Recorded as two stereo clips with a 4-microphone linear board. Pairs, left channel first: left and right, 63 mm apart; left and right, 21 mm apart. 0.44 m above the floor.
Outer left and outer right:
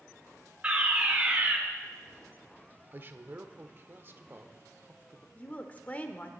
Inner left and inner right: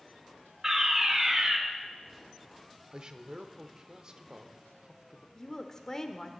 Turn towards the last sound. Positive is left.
turn(degrees=25)  # may be behind; listen again after turning